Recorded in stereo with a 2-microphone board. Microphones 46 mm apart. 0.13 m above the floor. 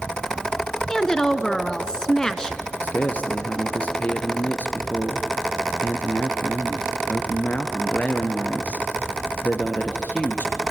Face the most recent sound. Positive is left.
turn(degrees=35)  # may be behind; listen again after turning